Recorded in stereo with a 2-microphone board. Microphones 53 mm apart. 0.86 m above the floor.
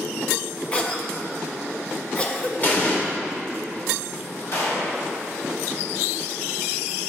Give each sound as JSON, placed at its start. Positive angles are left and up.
{"t": 0.7, "sound": "a cough", "side_deg": 20, "distance_m": 0.7}
{"t": 2.6, "sound": "an explosion", "side_deg": 40, "distance_m": 1.1}
{"t": 4.5, "sound": "a gunshot", "side_deg": 65, "distance_m": 1.8}